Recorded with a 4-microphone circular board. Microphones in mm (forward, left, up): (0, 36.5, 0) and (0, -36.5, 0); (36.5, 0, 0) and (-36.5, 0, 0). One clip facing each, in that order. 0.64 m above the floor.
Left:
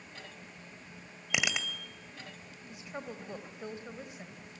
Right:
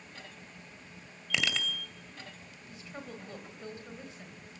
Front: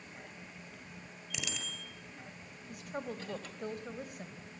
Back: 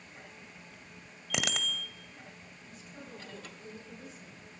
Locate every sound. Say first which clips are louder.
1.3 s a bicycle bell: even, back 9 dB; 160° left, 2 m
2.7 s a woman speaking: left 2 dB, front 9 dB; 20° left, 4 m